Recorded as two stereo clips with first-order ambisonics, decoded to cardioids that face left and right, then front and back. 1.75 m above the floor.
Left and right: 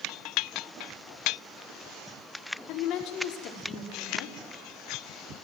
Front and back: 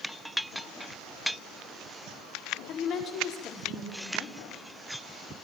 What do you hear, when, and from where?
2.7 s a woman speaking: 50° left, 5 m